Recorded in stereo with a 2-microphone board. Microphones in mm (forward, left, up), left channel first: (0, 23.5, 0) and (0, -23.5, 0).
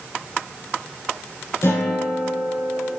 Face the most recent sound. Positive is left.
turn(degrees=65)  # may be behind; listen again after turning